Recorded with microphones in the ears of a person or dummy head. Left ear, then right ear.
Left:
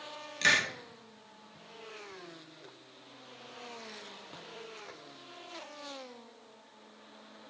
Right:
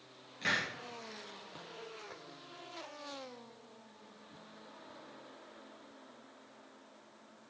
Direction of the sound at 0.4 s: 70° left (ahead or behind).